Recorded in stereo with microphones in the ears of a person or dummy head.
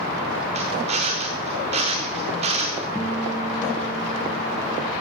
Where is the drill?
35° right (ahead or behind), 3 m.